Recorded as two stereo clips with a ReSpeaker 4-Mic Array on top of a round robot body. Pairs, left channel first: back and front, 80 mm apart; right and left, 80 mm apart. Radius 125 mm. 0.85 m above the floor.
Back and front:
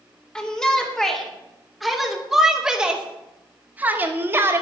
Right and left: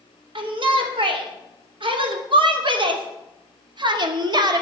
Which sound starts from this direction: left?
A shout, at 0.3 s.